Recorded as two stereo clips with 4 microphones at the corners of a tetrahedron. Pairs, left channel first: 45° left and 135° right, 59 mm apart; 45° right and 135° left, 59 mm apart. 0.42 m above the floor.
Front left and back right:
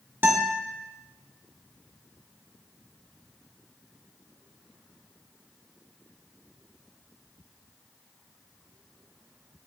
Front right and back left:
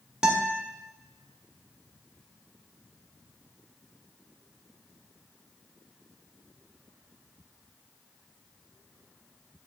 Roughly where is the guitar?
Behind right.